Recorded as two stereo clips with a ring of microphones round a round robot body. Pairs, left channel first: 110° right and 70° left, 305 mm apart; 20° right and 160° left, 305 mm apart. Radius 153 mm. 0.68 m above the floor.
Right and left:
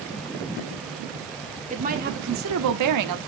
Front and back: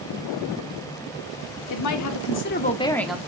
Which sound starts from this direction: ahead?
A woman speaking, at 1.7 s.